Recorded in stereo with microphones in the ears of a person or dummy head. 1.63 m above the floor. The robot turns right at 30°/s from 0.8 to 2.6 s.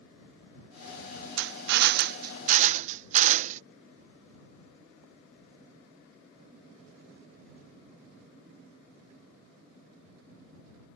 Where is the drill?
80° right; by 3.6 s 45° right.